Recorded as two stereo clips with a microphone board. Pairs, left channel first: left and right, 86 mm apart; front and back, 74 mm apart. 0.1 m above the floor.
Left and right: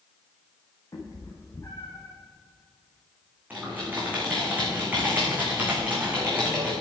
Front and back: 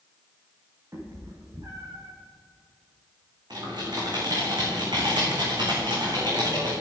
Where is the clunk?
No clunk in this recording.